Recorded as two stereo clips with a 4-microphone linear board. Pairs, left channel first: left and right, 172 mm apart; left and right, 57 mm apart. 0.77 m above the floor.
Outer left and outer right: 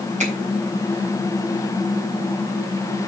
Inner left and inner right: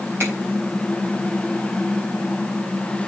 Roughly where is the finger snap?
Right.